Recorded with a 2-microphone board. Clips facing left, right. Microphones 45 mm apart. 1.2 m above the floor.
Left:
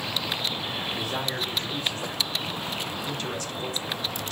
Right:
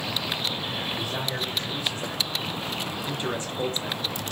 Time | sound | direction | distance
1.0 | a man speaking | 65° left (ahead or behind) | 1.6 m